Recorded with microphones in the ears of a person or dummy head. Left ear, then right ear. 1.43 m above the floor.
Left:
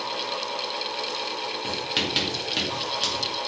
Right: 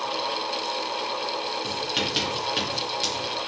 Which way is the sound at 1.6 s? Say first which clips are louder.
Left 2 dB; centre (ahead or behind).